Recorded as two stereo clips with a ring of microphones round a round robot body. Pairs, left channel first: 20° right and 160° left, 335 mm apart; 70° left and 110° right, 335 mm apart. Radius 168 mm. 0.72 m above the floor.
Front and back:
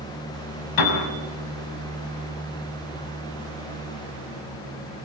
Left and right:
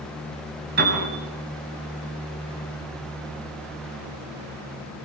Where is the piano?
50° right, 5.5 m.